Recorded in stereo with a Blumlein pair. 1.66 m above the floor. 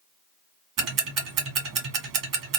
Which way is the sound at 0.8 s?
35° right.